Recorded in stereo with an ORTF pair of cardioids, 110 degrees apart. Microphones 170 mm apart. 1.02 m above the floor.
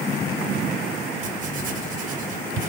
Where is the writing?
55° right, 2.5 m.